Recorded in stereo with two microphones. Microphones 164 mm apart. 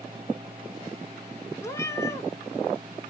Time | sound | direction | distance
1.6 | a cat meowing | 20° left (ahead or behind) | 0.5 m